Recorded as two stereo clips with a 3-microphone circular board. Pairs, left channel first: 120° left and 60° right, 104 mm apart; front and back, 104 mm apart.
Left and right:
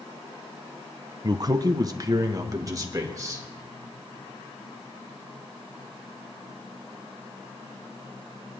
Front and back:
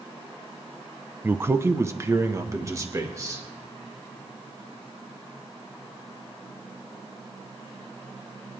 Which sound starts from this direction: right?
A man speaking, at 1.2 s.